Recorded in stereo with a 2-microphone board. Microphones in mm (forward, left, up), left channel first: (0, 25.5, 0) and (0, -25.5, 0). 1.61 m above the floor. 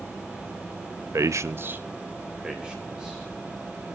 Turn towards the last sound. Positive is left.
turn(degrees=-10)  # may be behind; listen again after turning